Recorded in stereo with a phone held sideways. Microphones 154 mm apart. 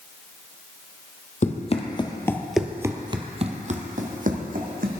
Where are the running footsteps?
50° left (ahead or behind), 1.4 m; by 4.9 s 65° right (ahead or behind), 2.5 m.